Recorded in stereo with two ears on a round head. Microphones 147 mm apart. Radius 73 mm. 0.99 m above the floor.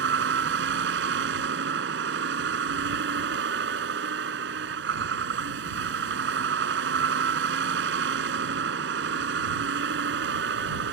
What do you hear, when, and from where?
0.0 s a vehicle: 80° right